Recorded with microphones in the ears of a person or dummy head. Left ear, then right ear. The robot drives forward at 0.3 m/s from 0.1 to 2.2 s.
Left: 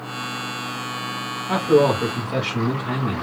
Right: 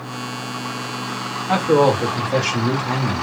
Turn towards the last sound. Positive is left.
turn(degrees=-15)  # may be behind; listen again after turning